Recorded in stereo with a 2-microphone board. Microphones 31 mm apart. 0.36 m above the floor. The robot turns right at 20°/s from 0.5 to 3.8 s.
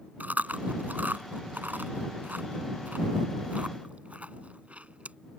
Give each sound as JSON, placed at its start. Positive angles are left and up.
{"t": 0.2, "sound": "chewing", "side_deg": -60}